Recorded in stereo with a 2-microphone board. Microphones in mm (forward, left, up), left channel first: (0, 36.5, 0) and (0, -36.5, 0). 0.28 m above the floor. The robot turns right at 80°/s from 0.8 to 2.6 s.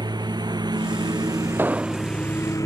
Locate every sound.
0.0 s a lawn mower: 75° right (ahead or behind); by 2.7 s 50° left (ahead or behind)
1.6 s an explosion: 30° right; by 2.1 s 10° left